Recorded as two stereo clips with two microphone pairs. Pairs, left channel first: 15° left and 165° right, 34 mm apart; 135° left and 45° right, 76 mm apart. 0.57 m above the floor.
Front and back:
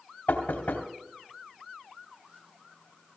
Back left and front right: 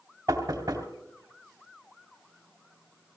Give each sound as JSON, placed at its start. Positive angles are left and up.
{"t": 0.3, "sound": "knocking", "azimuth_deg": 0, "distance_m": 2.5}